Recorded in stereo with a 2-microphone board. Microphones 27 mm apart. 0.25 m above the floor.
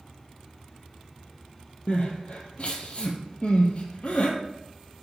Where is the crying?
55° left (ahead or behind), 1.6 m.